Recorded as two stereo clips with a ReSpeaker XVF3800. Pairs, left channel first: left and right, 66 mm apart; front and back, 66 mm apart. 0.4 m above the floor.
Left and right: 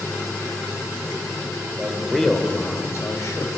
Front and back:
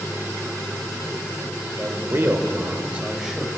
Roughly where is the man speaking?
Behind.